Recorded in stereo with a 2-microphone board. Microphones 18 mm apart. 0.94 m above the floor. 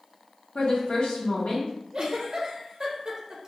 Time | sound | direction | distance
0.6 | a woman speaking | 75° left (ahead or behind) | 0.7 m
1.9 | a giggle | 45° right (ahead or behind) | 0.6 m